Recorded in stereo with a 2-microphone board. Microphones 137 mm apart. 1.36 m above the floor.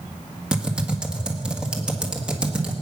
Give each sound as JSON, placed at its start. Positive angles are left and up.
{"t": 0.5, "sound": "typing on a keyboard", "side_deg": -5, "distance_m": 1.7}